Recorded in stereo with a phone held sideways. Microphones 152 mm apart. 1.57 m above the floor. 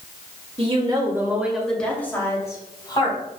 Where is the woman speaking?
40° right (ahead or behind), 2.0 m; by 3.2 s 30° left (ahead or behind), 4 m.